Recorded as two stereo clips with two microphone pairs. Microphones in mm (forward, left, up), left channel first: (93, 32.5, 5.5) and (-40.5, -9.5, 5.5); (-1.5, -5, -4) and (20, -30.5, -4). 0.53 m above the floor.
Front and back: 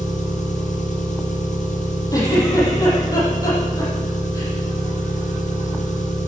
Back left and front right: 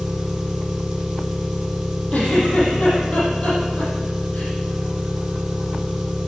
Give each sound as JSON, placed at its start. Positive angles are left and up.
{"t": 0.0, "sound": "an engine running", "azimuth_deg": 35, "distance_m": 5.0}
{"t": 2.1, "sound": "a giggle", "azimuth_deg": 80, "distance_m": 8.5}